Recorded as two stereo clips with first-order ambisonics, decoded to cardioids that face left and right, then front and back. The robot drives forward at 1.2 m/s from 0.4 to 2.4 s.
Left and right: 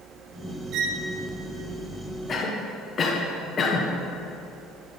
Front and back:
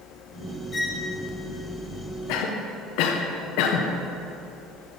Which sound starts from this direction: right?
A violin, at 0.7 s.